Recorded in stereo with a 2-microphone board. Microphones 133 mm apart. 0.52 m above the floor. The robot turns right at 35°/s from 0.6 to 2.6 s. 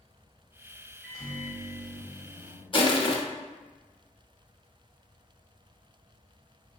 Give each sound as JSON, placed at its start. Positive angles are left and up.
{"t": 1.0, "sound": "a microwave", "azimuth_deg": 0, "distance_m": 1.8}
{"t": 2.7, "sound": "crushing", "side_deg": 40, "distance_m": 0.6}